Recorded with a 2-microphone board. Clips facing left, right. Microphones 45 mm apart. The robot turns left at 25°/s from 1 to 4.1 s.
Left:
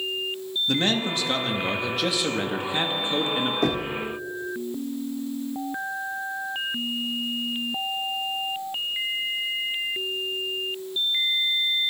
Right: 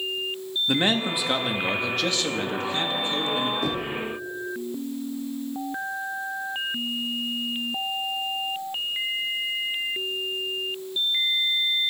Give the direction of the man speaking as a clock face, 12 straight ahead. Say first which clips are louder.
Right 1 dB; 5 o'clock.